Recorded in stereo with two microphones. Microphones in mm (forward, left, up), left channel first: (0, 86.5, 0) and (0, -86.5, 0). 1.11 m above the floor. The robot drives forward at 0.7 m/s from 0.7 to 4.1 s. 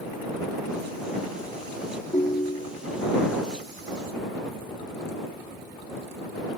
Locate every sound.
2.1 s a ringtone: 30° left (ahead or behind); by 2.8 s 40° left (ahead or behind)